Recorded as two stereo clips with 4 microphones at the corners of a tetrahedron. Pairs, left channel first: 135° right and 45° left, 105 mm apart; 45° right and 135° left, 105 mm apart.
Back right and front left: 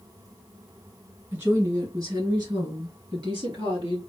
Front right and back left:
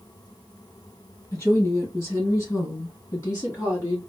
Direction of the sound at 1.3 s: 5° right.